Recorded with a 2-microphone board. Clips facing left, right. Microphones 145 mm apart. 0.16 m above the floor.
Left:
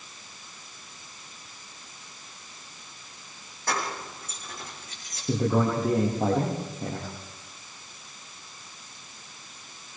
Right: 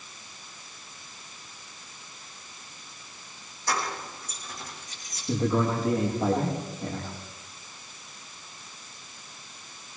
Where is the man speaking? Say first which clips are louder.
Left 1 dB; 45° left (ahead or behind), 6.5 m.